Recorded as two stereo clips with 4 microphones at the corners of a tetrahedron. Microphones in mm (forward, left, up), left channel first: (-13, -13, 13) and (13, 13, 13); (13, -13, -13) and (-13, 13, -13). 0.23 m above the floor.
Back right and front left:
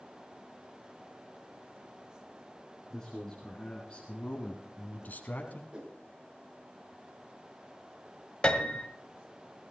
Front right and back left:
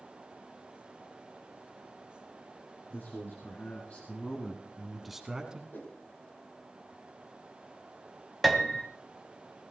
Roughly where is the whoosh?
Ahead.